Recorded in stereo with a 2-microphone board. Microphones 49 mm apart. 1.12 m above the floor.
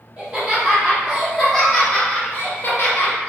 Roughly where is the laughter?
Centre.